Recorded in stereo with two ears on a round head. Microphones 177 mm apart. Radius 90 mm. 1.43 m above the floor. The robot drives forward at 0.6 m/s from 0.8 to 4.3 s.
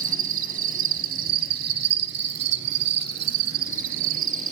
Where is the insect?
40° right (ahead or behind), 1.6 m.